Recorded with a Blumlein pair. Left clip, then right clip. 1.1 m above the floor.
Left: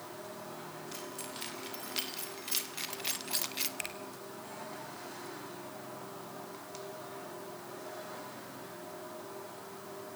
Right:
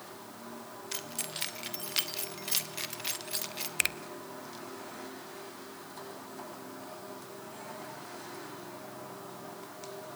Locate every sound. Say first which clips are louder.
0.9 s keys jangling: right 7 dB; 25° right, 2.5 m; by 3.7 s 15° left, 1.5 m
3.8 s a finger snap: right 10 dB; 60° right, 0.8 m